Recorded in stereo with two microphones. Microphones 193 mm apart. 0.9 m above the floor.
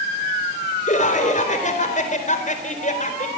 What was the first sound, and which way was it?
Laughter, 40° left (ahead or behind).